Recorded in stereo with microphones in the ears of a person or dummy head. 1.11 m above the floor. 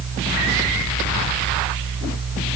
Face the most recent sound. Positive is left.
No sound to turn to.